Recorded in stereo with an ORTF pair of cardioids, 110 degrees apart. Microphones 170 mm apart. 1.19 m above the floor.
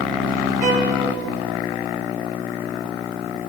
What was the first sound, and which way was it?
A violin, 45° right.